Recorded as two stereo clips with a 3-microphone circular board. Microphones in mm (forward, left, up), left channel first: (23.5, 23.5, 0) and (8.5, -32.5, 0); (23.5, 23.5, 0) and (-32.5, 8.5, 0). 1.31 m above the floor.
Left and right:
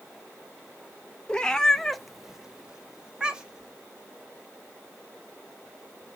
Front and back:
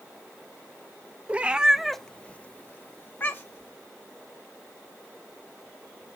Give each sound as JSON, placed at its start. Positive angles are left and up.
{"t": 1.3, "sound": "a cat meowing", "azimuth_deg": 145, "distance_m": 0.7}